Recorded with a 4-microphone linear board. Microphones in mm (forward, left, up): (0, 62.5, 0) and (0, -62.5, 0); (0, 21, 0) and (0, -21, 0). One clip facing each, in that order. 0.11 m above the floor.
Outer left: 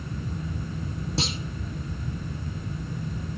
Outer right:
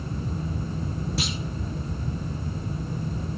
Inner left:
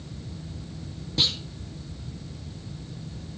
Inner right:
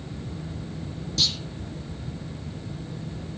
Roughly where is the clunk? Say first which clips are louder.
Outer left 4 dB, inner left 1 dB; left.